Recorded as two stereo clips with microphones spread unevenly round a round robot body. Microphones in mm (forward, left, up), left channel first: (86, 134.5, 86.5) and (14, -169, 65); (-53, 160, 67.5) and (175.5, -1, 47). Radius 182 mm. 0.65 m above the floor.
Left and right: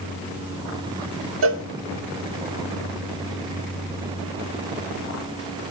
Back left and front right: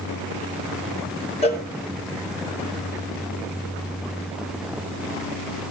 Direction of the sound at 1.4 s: 145° right.